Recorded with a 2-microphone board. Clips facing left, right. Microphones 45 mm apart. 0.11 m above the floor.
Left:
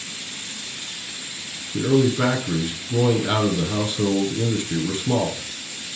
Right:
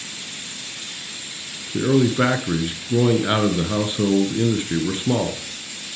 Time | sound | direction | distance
1.7 | a man speaking | 25° right (ahead or behind) | 1.2 m